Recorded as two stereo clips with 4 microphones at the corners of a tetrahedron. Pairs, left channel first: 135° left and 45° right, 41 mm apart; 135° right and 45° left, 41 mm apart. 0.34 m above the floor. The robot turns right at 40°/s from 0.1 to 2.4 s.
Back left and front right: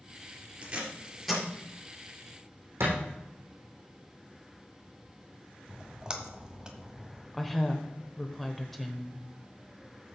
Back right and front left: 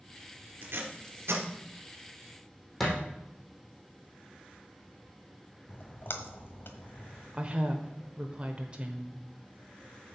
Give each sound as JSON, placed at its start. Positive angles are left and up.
{"t": 0.6, "sound": "tape being pulled", "azimuth_deg": 20, "distance_m": 2.5}
{"t": 2.8, "sound": "a thud", "azimuth_deg": -55, "distance_m": 3.5}
{"t": 5.7, "sound": "a splash", "azimuth_deg": -115, "distance_m": 1.2}
{"t": 7.3, "sound": "a woman speaking", "azimuth_deg": 55, "distance_m": 0.9}